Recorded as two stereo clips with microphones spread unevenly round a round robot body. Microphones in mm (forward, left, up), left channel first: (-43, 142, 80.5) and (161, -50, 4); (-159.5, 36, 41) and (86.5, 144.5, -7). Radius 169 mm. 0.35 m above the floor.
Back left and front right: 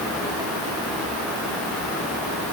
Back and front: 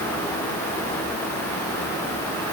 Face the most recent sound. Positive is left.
No sound to turn to.